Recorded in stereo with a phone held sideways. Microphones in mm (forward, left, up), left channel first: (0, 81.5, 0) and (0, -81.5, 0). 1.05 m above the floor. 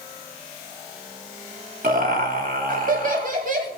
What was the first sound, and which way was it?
Laughter, 60° right (ahead or behind).